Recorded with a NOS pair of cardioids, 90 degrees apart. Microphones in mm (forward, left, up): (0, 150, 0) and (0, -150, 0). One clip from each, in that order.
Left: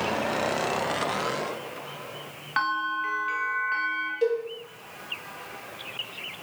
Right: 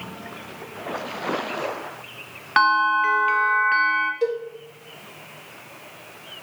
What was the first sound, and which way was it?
A bell, 45° right.